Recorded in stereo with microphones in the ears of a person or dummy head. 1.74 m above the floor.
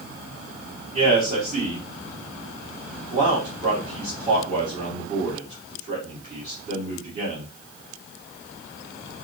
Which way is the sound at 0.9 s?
45° right (ahead or behind).